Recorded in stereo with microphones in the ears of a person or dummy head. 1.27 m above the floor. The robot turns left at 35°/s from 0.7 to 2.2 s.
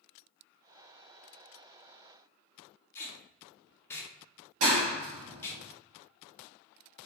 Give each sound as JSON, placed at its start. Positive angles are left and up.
{"t": 3.0, "sound": "tape being pulled", "side_deg": 20, "distance_m": 0.5}
{"t": 4.6, "sound": "a clap", "side_deg": -75, "distance_m": 1.0}